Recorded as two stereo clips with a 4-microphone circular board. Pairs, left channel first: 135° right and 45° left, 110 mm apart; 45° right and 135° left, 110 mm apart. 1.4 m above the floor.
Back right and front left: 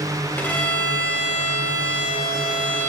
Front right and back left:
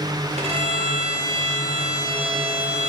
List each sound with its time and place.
0.4 s a violin: 150° left, 1.3 m